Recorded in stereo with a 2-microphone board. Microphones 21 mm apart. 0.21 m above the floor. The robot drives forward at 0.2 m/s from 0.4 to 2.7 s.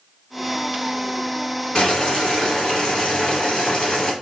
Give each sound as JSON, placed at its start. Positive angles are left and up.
{"t": 1.8, "sound": "boiling", "side_deg": 50, "distance_m": 1.3}